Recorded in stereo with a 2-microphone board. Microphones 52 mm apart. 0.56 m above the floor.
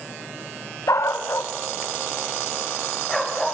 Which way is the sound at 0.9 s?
80° left.